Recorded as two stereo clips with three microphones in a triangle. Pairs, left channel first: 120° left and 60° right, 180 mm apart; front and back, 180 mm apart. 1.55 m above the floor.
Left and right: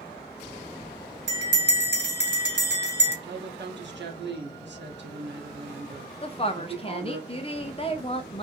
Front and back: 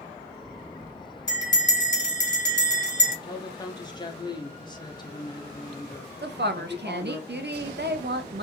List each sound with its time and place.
1.3 s a bell: 65° right, 1.2 m
3.2 s a woman speaking: 70° right, 0.8 m
6.2 s a woman speaking: 175° left, 0.6 m